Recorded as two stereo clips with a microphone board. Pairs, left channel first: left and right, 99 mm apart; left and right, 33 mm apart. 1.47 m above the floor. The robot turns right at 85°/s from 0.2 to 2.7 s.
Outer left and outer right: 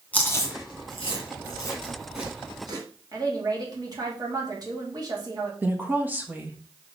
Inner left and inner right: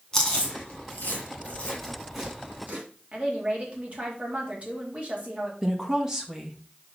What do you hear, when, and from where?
0.1 s chewing: 15° left (ahead or behind), 3 m; by 2.8 s 45° right (ahead or behind), 3 m
3.1 s a woman speaking: 40° right (ahead or behind), 3 m
5.6 s a woman speaking: 20° right (ahead or behind), 1.5 m